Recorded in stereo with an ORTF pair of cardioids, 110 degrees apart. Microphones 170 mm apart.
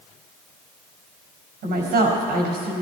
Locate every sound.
1.6 s a woman speaking: 70° right, 5 m